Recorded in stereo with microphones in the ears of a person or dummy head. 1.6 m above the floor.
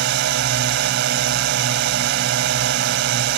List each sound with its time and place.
0.0 s a drone: 65° right (ahead or behind)